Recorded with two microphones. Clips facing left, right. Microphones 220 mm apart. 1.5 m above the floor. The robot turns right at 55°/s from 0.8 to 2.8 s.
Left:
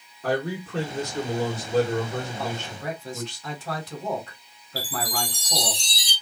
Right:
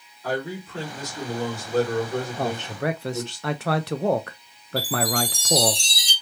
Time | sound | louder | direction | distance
0.2 | a man speaking | left 2 dB | 115° left | 1.7 m
2.4 | a man speaking | right 5 dB | 50° right (ahead or behind) | 0.6 m
4.8 | a chime | right 6 dB | 35° left (ahead or behind) | 2 m